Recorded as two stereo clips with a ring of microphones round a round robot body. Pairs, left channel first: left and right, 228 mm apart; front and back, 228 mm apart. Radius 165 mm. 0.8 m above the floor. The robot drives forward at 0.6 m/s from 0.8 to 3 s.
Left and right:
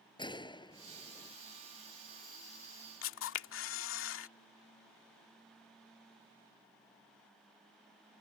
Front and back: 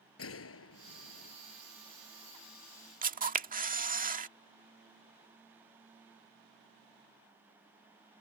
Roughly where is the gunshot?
Ahead.